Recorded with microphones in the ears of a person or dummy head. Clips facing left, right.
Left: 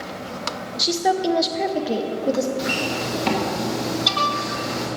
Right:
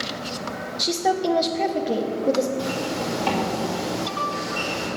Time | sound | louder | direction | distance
0.8 | a woman speaking | left 2 dB | 5° left (ahead or behind) | 0.5 m
2.6 | a zipper | left 1 dB | 25° left (ahead or behind) | 1.8 m